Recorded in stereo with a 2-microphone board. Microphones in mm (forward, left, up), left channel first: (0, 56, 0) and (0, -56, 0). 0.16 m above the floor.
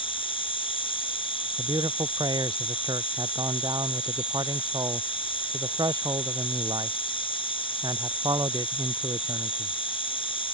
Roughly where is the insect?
Left.